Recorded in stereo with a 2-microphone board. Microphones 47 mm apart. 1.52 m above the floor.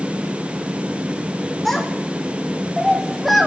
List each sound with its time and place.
1.6 s a child speaking: 5° left (ahead or behind), 3.5 m; by 3.5 s centre (ahead or behind), 2.5 m